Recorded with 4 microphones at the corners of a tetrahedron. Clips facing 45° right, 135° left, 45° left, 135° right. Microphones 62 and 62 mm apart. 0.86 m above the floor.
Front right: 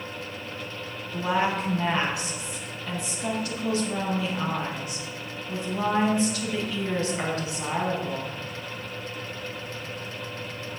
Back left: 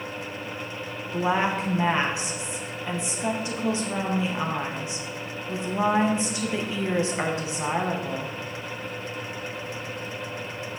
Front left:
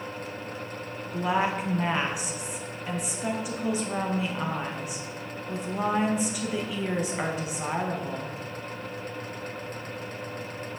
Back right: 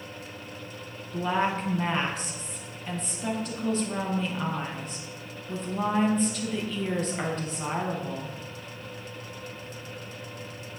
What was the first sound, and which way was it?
A woman speaking, 110° left.